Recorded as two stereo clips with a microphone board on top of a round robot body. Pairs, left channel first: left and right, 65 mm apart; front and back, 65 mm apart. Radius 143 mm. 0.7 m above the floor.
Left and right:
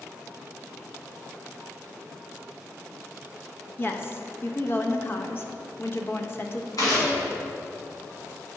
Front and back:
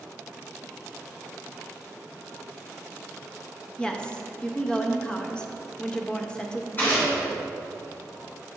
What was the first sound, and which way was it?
A woman speaking, 65° left.